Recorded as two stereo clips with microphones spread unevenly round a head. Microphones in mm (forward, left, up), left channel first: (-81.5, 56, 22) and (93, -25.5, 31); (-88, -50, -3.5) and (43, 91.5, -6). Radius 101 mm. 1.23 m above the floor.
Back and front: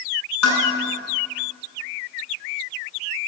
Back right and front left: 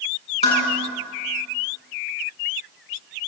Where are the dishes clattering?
170° left, 9 m.